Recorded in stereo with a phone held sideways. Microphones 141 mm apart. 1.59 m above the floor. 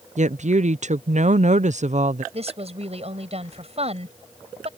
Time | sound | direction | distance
0.2 | a woman speaking | 55° right (ahead or behind) | ?
2.3 | a woman speaking | 45° right (ahead or behind) | ?